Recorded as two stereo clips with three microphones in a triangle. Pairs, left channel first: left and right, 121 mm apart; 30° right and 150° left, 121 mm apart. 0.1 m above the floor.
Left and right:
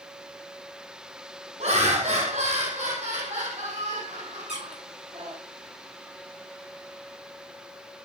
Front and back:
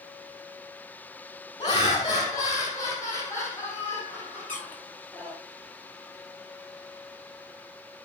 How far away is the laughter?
About 3 m.